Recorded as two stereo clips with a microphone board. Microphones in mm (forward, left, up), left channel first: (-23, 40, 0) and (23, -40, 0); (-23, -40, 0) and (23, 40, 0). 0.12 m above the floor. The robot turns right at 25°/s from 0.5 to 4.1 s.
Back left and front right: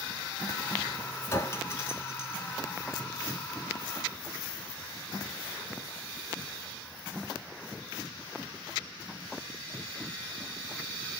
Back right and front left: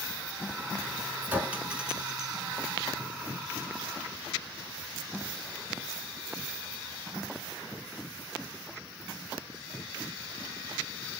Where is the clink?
110° left, 0.9 m; by 2.4 s 140° left, 0.9 m.